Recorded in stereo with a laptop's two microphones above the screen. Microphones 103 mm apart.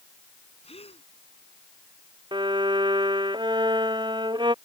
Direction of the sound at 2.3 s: 50° right (ahead or behind).